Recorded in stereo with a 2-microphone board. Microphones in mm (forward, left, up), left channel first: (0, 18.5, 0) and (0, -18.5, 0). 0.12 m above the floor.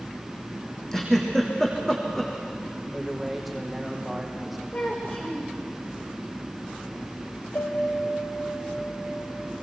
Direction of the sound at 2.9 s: Centre (ahead or behind).